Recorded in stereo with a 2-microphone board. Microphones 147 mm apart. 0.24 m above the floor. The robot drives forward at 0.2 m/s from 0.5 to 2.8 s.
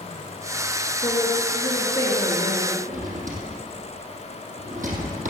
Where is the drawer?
65° right (ahead or behind), 3 m.